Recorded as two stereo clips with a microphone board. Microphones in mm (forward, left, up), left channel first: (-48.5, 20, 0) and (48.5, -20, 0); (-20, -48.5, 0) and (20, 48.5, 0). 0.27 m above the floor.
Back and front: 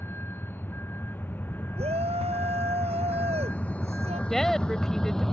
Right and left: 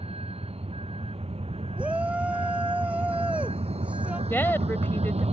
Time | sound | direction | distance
0.0 | a vehicle | 90° left | ?
1.8 | a shout | 10° right | ?
4.3 | a woman speaking | 125° right | ?